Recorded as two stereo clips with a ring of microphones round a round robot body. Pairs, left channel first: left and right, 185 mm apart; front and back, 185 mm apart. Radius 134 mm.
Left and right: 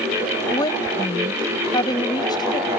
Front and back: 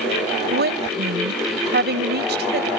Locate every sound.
0.5 s a woman speaking: 160° left